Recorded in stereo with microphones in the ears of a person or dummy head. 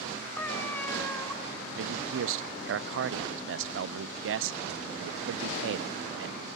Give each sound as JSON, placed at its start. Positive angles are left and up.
{"t": 0.4, "sound": "a cat meowing", "side_deg": 10, "distance_m": 2.5}
{"t": 1.8, "sound": "a man speaking", "side_deg": -75, "distance_m": 0.6}